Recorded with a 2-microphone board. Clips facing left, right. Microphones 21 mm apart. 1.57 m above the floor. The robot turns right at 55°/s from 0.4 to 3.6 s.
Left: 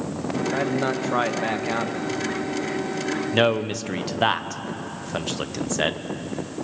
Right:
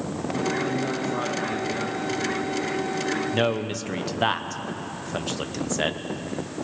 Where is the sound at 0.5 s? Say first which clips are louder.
Left 4 dB; 55° left, 1.6 m; by 2.1 s 140° left, 1.6 m.